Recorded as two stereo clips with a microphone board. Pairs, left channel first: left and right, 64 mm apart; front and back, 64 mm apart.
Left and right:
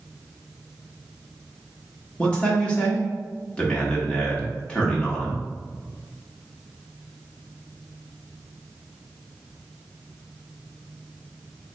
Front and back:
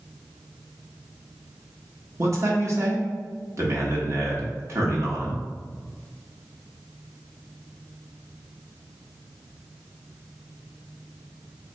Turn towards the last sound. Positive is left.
turn(degrees=160)